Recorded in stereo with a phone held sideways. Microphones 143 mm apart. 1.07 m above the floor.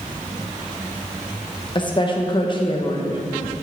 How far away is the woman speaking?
About 1.2 m.